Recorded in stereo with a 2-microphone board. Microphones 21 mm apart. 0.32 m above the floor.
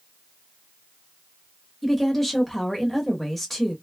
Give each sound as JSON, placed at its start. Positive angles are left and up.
{"t": 1.8, "sound": "a woman speaking", "side_deg": 10, "distance_m": 0.9}